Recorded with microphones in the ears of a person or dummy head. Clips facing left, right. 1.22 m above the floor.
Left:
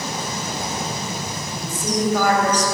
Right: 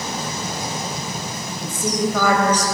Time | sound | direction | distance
1.5 | a woman speaking | 80° right | 6 m